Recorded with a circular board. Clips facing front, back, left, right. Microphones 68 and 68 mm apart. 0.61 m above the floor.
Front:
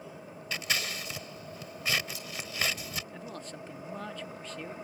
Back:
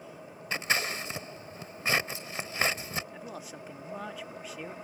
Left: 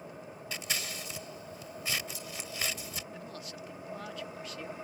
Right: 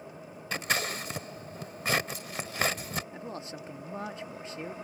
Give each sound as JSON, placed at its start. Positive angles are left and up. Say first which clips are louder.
{"t": 0.5, "sound": "scissors", "louder": "back 4 dB, right 8 dB", "azimuth_deg": -125}
{"t": 3.1, "sound": "a man speaking", "louder": "even, right 4 dB", "azimuth_deg": -105}